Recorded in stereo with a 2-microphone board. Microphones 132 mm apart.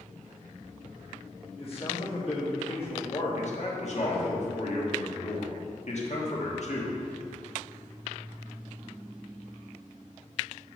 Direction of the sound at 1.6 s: 45° left (ahead or behind).